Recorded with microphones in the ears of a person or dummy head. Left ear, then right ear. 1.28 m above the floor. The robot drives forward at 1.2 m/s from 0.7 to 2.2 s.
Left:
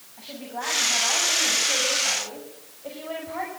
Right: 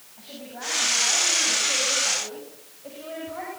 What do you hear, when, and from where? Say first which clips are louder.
0.2 s a woman speaking: left 4 dB; 20° left (ahead or behind), 9.5 m